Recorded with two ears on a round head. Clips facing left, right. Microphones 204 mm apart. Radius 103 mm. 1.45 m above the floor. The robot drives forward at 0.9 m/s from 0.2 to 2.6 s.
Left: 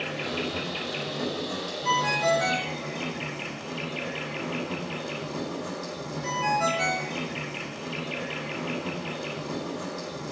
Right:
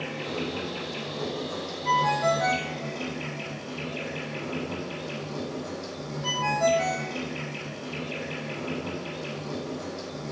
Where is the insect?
80° left, 2.5 m; by 10.3 s 45° left (ahead or behind), 3 m.